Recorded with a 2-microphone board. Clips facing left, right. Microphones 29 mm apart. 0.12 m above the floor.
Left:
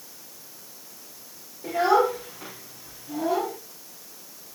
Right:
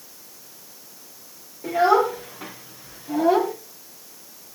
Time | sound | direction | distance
1.6 | a child speaking | 10° right (ahead or behind) | 5 m